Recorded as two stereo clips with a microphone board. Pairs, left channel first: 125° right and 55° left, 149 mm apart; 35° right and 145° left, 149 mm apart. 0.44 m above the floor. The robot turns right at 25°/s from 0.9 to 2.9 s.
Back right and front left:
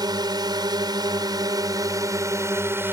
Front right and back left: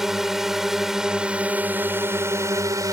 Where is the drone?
60° left; by 2.9 s 110° left.